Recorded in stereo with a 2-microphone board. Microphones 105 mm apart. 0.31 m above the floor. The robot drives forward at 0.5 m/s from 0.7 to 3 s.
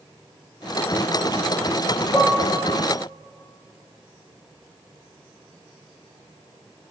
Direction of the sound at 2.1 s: 25° left (ahead or behind).